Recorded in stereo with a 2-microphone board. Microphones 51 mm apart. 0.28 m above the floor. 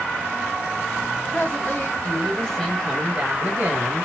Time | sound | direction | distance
1.3 | a woman speaking | 40° left (ahead or behind) | 1.9 m